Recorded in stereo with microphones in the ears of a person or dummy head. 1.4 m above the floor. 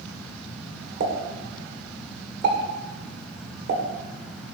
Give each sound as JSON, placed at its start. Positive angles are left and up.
{"t": 1.0, "sound": "a pop", "side_deg": -50, "distance_m": 2.5}